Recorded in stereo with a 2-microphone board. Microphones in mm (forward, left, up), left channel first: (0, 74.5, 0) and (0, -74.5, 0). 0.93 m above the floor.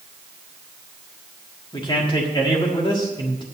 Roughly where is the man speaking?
Left.